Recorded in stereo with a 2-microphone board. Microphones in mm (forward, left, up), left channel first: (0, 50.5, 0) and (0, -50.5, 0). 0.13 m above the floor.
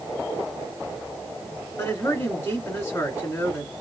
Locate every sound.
1.8 s a man speaking: 25° left (ahead or behind), 1.9 m